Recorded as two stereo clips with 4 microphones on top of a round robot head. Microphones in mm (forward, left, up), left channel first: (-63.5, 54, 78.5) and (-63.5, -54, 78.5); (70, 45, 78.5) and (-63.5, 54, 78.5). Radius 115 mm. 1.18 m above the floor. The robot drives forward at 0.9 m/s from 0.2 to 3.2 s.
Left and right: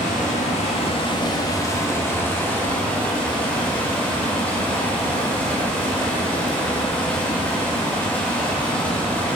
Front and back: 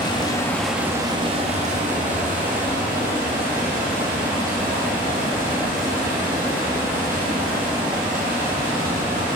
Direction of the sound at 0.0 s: 50° left.